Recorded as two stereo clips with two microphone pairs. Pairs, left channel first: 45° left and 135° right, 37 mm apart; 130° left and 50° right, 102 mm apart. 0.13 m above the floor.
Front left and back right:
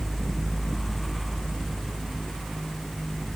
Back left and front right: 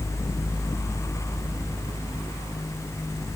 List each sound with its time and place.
Only background noise.